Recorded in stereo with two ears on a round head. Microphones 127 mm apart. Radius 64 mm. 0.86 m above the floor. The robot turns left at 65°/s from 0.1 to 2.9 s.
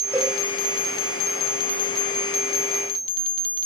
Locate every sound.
0.1 s a cowbell: 15° right (ahead or behind), 7.5 m; by 0.4 s centre (ahead or behind), 7.5 m